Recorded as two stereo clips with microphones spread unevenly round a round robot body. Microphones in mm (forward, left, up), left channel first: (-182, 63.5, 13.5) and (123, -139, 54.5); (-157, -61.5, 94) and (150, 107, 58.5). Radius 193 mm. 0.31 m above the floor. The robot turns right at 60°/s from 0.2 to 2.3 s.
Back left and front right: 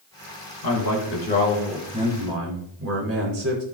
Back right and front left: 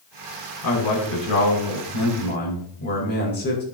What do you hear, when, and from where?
0.6 s a man speaking: 170° left, 4 m; by 3.6 s 90° right, 4 m